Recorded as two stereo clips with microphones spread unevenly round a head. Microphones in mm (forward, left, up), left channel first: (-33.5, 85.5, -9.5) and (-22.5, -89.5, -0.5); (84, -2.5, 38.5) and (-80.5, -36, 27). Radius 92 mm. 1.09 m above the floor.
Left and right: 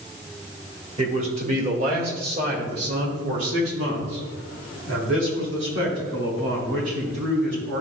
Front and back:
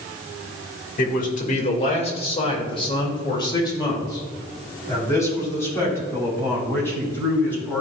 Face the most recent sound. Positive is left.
turn(degrees=-70)